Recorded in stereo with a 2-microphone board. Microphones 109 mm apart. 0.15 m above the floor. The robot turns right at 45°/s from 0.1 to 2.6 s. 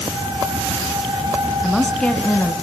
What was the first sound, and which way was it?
A woman speaking, straight ahead.